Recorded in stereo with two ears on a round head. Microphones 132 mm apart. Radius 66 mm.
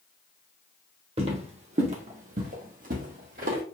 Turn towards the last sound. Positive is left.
turn(degrees=-60)  # may be behind; listen again after turning